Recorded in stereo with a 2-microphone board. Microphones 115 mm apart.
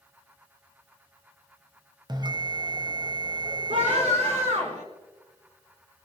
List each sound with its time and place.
2.1 s a bell: 40° right (ahead or behind), 0.9 m
3.7 s a scream: 75° right (ahead or behind), 6 m